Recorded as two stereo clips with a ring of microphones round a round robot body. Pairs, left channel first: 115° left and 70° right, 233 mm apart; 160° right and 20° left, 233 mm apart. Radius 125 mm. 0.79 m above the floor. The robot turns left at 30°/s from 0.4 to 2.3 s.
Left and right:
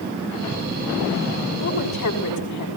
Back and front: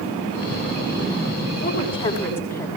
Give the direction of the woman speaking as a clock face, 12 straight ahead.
7 o'clock.